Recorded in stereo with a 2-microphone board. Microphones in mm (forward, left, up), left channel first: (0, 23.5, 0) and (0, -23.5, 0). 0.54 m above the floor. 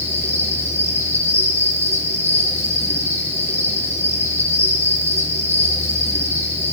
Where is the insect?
60° right (ahead or behind), 6 m.